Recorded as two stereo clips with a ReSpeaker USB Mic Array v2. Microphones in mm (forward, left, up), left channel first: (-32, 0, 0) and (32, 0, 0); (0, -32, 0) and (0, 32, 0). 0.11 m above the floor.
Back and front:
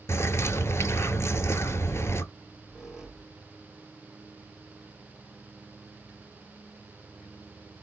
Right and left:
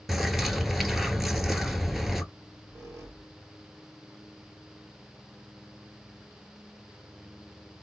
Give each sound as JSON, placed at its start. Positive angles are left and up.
{"t": 0.1, "sound": "a bird", "azimuth_deg": 175, "distance_m": 0.5}
{"t": 2.3, "sound": "a squeak", "azimuth_deg": 80, "distance_m": 1.2}